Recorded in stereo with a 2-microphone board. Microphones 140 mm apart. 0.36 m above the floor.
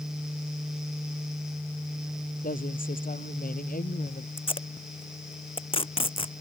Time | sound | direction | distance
2.4 | a woman speaking | 80° left | ?
4.4 | tape being pulled | 40° left (ahead or behind) | ?